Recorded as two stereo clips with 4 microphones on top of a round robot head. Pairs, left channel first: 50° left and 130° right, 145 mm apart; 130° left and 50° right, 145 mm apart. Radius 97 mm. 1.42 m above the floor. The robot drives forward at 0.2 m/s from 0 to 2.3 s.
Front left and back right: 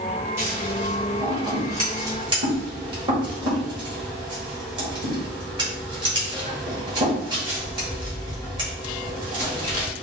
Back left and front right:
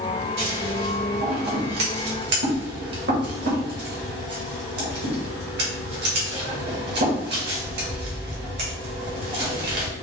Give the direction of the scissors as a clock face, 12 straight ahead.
2 o'clock.